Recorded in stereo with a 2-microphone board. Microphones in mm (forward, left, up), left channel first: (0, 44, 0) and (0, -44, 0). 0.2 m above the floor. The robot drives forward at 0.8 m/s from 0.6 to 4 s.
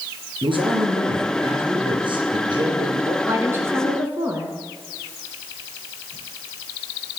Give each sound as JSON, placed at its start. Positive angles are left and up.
{"t": 0.4, "sound": "a man speaking", "side_deg": -65, "distance_m": 4.0}
{"t": 3.2, "sound": "a woman speaking", "side_deg": -30, "distance_m": 1.6}